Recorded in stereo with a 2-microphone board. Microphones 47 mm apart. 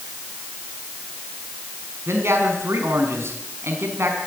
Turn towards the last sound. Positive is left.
turn(degrees=-65)  # may be behind; listen again after turning